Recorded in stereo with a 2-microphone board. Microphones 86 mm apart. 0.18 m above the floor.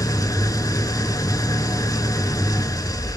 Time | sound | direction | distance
0.0 | an engine running | 45° left (ahead or behind) | 0.7 m